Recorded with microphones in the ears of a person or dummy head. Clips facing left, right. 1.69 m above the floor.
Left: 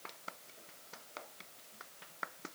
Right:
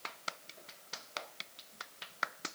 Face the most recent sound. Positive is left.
No sound to turn to.